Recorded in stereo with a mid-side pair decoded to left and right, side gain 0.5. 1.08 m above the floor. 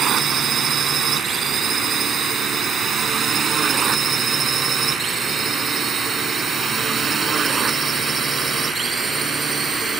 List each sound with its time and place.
0.0 s a drone: 50° right; by 10.0 s 35° right